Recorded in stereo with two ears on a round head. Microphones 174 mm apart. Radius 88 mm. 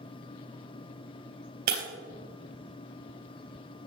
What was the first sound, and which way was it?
Breaking glass, 50° right (ahead or behind).